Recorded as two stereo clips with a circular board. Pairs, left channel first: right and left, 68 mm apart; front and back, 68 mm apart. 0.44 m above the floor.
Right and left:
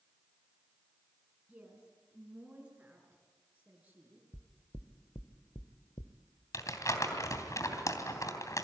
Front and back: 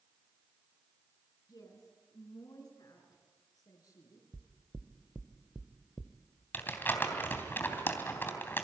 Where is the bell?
No bell in this recording.